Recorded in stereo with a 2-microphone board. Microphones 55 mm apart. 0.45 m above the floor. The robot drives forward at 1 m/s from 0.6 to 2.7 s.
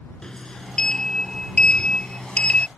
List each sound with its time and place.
0.2 s a sliding door: 10° left (ahead or behind); by 2.7 s 25° left (ahead or behind)